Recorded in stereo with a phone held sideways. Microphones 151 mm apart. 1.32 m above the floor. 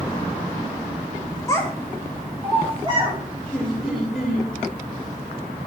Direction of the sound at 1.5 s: 20° left (ahead or behind).